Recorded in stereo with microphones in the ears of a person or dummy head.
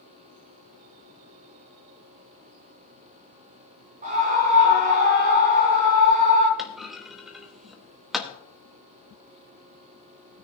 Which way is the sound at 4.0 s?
40° right (ahead or behind).